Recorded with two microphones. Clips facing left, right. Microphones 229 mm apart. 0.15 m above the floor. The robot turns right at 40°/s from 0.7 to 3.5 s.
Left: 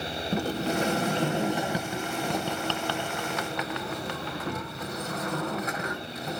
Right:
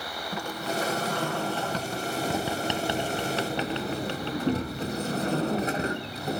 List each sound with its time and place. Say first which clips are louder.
0.3 s a sliding door: left 5 dB; 120° left, 0.7 m; by 6.4 s 125° right, 0.7 m